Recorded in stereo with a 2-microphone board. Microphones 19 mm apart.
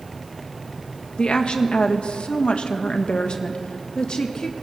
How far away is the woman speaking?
About 1.7 m.